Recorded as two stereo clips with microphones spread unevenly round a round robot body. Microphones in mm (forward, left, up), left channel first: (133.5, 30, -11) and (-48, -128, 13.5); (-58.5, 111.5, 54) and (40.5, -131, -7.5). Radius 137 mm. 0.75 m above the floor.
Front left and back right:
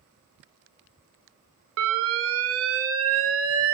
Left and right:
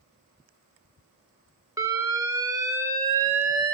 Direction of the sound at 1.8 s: 130° right.